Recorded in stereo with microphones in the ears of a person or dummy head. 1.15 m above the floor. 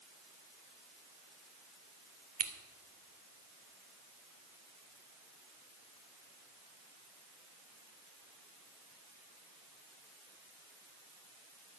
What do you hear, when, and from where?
2.4 s scissors: 35° right (ahead or behind), 1.3 m